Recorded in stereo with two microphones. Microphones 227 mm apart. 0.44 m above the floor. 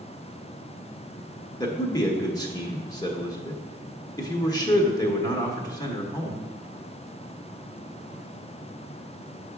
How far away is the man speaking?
About 1.0 m.